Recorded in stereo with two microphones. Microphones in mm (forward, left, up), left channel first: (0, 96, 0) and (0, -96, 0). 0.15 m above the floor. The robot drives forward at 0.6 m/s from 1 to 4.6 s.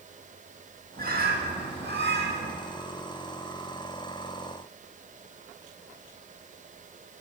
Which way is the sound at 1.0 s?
55° right (ahead or behind).